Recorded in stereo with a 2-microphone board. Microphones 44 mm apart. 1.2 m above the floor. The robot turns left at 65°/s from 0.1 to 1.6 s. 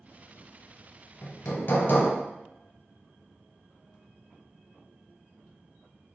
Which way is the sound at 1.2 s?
45° left (ahead or behind).